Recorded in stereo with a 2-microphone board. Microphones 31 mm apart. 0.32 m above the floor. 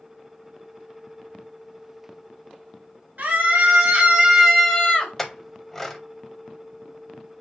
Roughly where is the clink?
Centre.